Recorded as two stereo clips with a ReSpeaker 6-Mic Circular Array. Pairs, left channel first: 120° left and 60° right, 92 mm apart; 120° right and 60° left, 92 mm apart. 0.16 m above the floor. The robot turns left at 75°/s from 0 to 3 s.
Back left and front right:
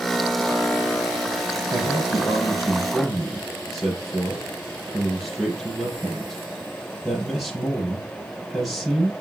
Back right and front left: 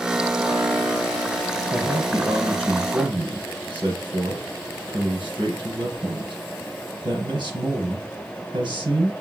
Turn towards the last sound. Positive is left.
turn(degrees=30)